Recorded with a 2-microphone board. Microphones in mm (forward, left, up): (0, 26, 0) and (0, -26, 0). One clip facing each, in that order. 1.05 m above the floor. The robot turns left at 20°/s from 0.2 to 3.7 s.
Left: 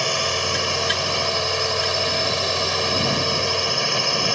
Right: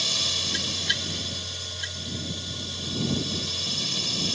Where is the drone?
130° left; by 4.4 s 60° left.